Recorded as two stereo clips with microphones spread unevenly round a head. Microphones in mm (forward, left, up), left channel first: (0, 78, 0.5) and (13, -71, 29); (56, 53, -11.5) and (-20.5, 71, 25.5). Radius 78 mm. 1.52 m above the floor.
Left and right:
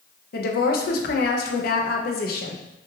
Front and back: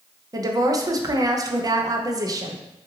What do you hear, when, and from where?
0.3 s a woman speaking: 120° left, 0.6 m